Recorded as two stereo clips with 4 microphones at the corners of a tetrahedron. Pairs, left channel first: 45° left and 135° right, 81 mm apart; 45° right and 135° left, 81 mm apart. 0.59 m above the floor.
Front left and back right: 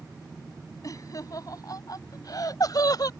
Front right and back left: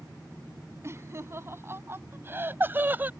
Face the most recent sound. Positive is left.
turn(degrees=75)